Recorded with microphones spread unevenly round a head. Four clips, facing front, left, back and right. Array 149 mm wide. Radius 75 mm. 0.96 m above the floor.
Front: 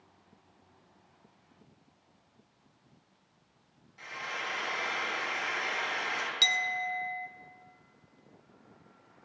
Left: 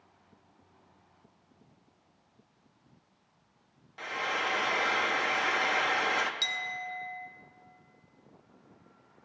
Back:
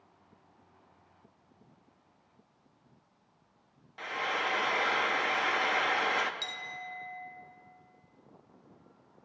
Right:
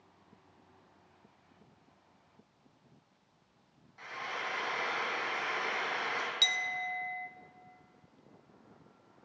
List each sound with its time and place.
4.0 s frying: 105° left, 0.5 m
6.4 s a clink: 10° right, 0.5 m